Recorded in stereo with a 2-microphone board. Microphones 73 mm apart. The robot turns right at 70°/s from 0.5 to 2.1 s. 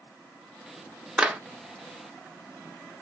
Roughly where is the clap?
Centre.